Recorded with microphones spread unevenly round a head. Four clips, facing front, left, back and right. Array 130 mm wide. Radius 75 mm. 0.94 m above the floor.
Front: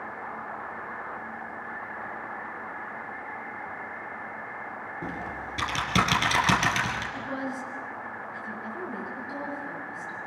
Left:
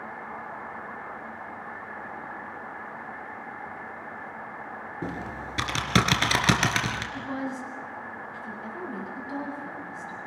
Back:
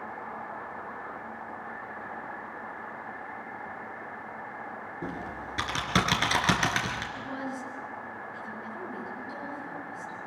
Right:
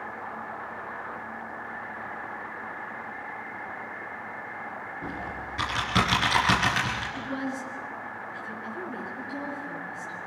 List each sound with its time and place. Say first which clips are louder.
5.0 s typing on a keyboard: left 3 dB, front 1 dB; 100° left, 3 m
7.1 s a woman speaking: even, front 3 dB; 50° left, 8.5 m